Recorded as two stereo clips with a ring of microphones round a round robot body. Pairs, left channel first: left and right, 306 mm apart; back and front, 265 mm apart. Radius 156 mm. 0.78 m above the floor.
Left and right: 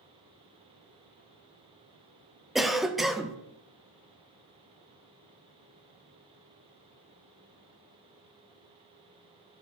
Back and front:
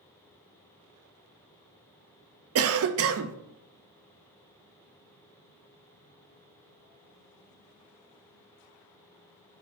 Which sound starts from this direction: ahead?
A cough, at 2.5 s.